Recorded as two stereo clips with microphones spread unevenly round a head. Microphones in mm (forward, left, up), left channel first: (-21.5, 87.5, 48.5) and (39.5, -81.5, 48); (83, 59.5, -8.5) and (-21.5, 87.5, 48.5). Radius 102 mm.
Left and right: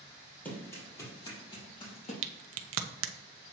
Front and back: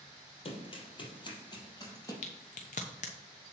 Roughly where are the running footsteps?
Ahead left.